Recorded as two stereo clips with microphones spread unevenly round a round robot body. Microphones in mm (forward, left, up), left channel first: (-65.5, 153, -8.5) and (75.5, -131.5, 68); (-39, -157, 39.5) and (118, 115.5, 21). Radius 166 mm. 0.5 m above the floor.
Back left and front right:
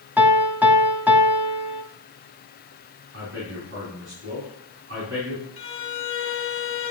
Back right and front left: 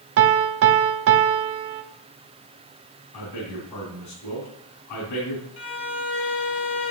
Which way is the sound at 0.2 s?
15° left.